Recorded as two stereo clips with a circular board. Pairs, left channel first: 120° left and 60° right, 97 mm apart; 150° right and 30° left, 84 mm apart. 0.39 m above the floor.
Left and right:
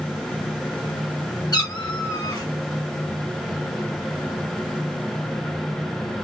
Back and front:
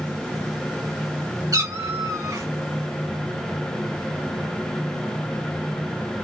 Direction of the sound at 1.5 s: 75° left.